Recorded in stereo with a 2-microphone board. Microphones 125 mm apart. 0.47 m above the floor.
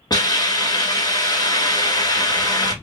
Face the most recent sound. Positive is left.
turn(degrees=35)  # may be behind; listen again after turning